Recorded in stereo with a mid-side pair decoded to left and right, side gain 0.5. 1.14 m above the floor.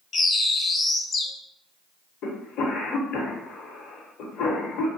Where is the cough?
70° left, 1.0 m.